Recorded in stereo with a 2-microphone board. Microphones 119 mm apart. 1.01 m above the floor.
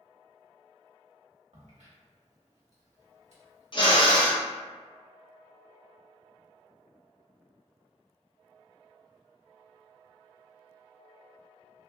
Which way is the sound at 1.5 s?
70° right (ahead or behind).